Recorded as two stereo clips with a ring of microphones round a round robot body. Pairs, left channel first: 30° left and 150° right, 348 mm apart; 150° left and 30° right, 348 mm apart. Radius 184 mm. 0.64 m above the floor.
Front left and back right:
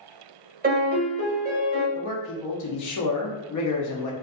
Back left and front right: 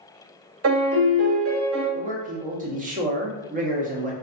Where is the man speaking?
30° left, 0.8 m.